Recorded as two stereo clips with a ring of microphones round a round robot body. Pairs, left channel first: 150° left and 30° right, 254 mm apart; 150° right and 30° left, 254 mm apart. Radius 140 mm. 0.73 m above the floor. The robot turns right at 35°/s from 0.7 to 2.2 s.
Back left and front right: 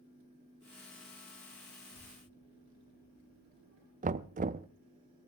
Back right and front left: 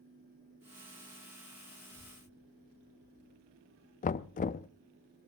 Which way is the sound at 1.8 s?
20° right.